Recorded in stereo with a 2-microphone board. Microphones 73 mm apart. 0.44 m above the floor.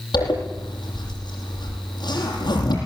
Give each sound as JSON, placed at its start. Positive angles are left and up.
{"t": 0.1, "sound": "a zipper", "side_deg": 75, "distance_m": 9.0}